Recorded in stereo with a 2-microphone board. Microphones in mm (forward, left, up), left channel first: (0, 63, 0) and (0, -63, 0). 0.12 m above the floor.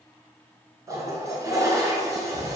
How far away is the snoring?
No snoring in this recording.